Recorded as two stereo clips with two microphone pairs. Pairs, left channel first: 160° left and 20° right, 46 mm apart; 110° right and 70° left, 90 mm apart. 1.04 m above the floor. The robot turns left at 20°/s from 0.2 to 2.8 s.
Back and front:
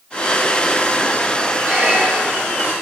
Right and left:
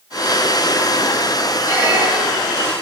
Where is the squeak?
5° left, 3 m; by 2.6 s 15° right, 3 m.